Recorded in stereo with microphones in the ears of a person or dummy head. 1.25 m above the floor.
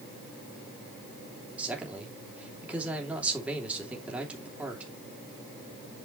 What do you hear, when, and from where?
1.6 s a man speaking: 5° right (ahead or behind), 3 m